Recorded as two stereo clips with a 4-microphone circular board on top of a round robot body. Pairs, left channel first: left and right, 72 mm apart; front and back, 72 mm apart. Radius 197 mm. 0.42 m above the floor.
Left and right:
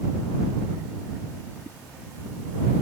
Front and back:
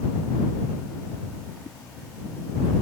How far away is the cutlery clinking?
No cutlery clinking in this recording.